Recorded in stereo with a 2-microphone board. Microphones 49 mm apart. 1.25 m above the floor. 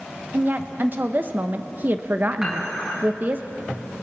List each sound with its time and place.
0.3 s a woman speaking: 40° right (ahead or behind), 0.8 m
2.4 s dishes clattering: 10° right (ahead or behind), 8 m